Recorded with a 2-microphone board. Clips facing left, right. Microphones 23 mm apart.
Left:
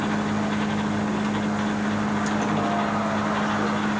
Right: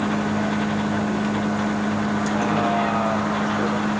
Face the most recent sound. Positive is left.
turn(degrees=-60)  # may be behind; listen again after turning